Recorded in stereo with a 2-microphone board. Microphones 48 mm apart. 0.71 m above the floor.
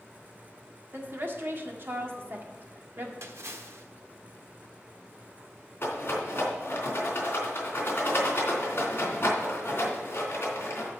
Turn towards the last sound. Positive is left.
turn(degrees=45)  # may be behind; listen again after turning